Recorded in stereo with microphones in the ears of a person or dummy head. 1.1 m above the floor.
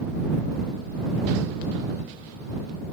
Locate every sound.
Only background noise.